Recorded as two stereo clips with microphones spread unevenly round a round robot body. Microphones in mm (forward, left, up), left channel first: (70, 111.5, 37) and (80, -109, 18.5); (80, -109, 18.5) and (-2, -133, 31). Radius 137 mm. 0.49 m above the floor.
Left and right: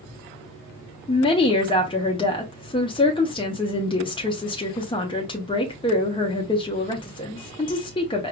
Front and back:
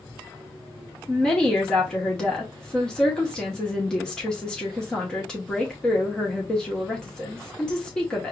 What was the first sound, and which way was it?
A woman speaking, 55° left.